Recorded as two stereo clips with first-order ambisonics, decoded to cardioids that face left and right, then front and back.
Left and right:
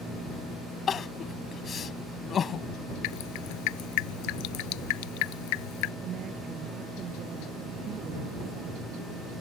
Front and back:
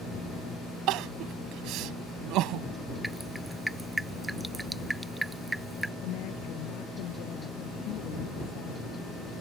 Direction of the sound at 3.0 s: 95° left.